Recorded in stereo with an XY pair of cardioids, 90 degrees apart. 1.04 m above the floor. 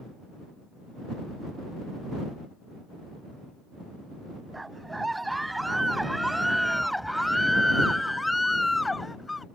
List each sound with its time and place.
4.5 s a scream: 15° right; by 9.4 s 25° left